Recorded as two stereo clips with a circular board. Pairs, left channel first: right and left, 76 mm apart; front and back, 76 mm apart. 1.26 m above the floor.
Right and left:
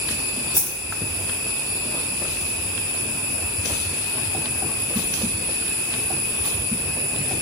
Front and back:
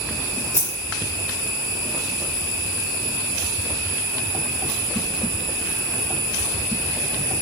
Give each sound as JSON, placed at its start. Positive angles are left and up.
{"t": 0.6, "sound": "a dropped coin", "azimuth_deg": -135, "distance_m": 4.0}